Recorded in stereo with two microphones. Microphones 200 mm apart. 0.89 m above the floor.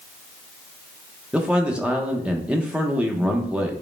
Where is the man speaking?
5° right (ahead or behind), 0.7 m.